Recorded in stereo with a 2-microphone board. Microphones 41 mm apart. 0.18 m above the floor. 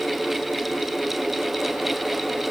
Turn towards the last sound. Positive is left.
No sound to turn to.